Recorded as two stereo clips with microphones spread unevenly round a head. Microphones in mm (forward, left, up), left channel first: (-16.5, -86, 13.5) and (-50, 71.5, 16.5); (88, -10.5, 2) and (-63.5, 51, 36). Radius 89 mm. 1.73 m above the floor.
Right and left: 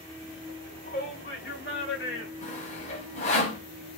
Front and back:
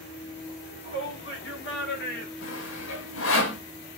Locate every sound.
0.5 s a shout: 40° right, 7.5 m; by 2.3 s 50° right, 5 m
2.4 s sawing: 25° right, 3 m